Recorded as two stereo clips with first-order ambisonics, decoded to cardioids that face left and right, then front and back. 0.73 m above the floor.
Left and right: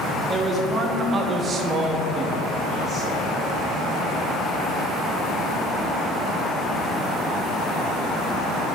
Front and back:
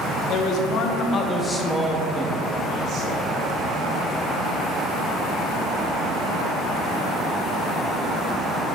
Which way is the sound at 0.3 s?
15° right.